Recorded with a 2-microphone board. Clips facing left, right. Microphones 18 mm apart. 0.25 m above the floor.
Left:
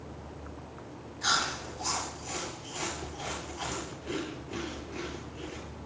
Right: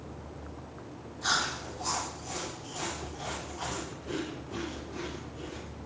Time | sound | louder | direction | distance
1.2 | chewing | left 1 dB | 50° left (ahead or behind) | 3 m